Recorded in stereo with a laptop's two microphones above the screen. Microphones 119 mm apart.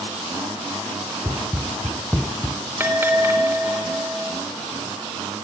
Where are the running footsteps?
15° right (ahead or behind), 2 m; by 2.6 s 35° left (ahead or behind), 1.2 m.